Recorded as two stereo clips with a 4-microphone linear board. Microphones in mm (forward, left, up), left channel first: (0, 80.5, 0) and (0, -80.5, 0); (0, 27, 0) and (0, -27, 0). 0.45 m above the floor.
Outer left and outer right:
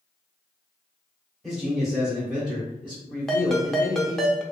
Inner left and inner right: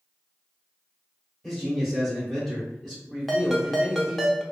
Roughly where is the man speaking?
Centre.